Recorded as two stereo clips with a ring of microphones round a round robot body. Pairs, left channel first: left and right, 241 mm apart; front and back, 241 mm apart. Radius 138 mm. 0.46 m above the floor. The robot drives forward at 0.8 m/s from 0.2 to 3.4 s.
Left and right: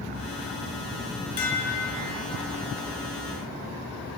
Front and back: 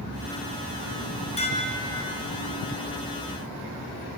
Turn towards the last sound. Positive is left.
turn(degrees=90)